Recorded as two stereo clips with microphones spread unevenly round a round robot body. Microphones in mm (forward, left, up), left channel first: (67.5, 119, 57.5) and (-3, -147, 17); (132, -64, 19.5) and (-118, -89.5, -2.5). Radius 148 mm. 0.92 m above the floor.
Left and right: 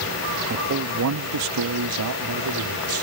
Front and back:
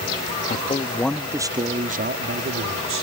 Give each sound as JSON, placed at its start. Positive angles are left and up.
{"t": 0.5, "sound": "a man speaking", "azimuth_deg": -55}